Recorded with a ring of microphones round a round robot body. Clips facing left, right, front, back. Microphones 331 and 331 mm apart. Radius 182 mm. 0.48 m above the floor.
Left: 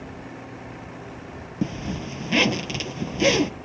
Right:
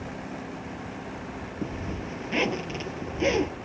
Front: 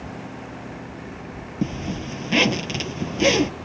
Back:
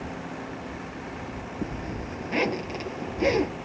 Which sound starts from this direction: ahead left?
A zipper, at 1.6 s.